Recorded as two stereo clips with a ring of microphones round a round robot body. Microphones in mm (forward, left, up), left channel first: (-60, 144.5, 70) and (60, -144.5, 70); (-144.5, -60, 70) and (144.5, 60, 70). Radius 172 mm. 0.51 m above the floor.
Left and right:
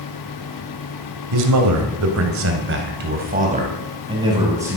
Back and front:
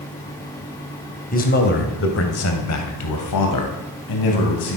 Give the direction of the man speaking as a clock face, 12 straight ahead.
3 o'clock.